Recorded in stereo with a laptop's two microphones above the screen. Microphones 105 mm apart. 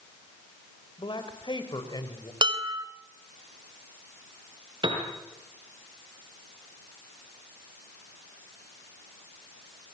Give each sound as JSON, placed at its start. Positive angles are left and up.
{"t": 1.0, "sound": "a man speaking", "side_deg": 50, "distance_m": 3.5}
{"t": 2.4, "sound": "dishes clattering", "side_deg": -50, "distance_m": 3.0}
{"t": 4.8, "sound": "a piano", "side_deg": -50, "distance_m": 6.5}